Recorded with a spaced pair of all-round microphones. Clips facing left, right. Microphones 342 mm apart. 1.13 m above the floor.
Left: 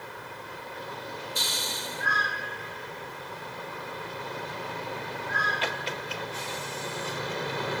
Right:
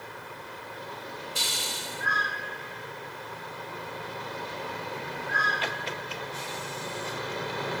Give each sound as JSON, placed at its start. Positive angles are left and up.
{"t": 1.4, "sound": "a hiss", "side_deg": -40, "distance_m": 0.8}